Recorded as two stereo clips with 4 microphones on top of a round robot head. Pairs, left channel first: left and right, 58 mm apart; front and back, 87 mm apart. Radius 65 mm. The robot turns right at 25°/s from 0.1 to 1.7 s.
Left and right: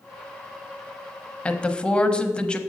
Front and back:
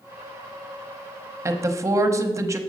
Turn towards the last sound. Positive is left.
turn(degrees=155)